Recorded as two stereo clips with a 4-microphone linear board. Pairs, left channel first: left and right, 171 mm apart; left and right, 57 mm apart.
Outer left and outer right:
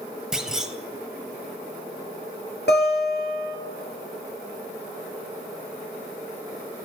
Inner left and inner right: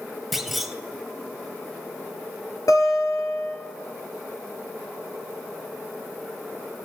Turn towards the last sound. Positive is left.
turn(degrees=80)